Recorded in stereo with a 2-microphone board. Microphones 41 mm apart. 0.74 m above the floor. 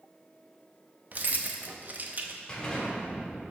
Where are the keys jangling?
45° right (ahead or behind), 0.6 m.